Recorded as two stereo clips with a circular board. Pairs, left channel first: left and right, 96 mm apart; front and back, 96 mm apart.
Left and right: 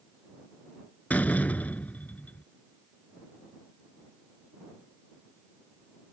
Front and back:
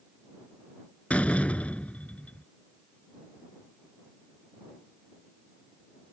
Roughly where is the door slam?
Ahead left.